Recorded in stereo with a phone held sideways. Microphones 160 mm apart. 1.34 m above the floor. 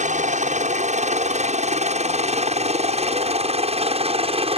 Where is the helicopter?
50° right (ahead or behind); by 4.6 s 35° right (ahead or behind).